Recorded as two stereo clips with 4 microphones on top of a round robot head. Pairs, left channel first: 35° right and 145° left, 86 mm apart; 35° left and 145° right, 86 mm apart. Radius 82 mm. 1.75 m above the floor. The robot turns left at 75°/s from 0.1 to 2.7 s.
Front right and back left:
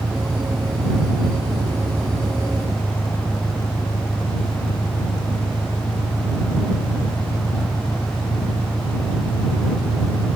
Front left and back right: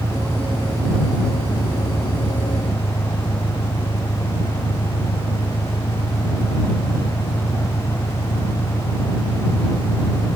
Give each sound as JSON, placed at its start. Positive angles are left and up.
{"t": 0.0, "sound": "an engine running", "azimuth_deg": -155}